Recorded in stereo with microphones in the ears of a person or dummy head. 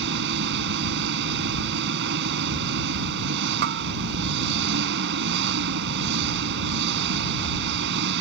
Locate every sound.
0.0 s an engine running: 65° right (ahead or behind)
3.6 s a bell: 50° right (ahead or behind)